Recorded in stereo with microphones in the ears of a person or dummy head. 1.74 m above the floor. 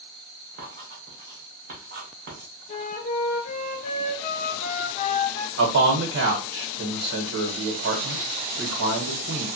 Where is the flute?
40° left (ahead or behind), 0.8 m.